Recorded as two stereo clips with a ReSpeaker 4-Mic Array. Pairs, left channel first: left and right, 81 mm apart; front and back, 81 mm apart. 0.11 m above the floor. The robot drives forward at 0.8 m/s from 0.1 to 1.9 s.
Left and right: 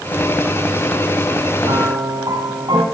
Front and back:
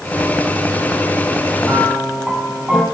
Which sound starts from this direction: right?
A piano, at 1.6 s.